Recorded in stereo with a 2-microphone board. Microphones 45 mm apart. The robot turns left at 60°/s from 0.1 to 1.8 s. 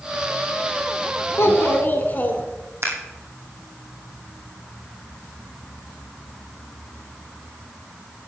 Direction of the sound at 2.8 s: 65° right (ahead or behind).